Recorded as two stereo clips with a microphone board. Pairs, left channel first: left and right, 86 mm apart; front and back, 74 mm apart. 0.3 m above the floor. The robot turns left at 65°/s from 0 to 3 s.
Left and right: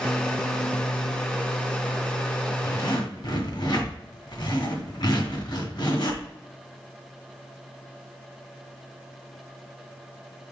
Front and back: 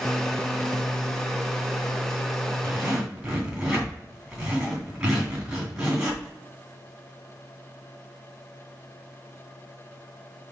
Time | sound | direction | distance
2.6 | a zipper | 125° left | 2.5 m